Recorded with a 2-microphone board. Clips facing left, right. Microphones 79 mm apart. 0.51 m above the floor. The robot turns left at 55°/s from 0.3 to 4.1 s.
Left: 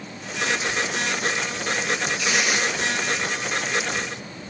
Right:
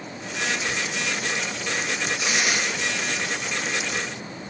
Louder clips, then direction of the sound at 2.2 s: Even; 30° right (ahead or behind).